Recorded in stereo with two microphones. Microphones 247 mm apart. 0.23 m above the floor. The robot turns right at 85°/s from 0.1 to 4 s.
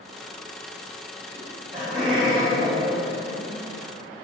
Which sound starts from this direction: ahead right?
Laughter, at 1.4 s.